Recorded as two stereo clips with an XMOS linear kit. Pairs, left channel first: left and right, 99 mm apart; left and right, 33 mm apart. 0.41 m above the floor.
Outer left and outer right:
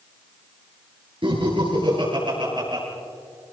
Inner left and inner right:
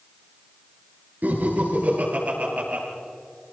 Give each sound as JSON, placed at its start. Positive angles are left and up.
{"t": 1.2, "sound": "laughter", "side_deg": -60, "distance_m": 7.0}